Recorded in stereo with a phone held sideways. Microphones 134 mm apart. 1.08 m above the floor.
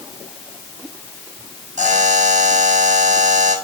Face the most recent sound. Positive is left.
turn(degrees=-70)  # may be behind; listen again after turning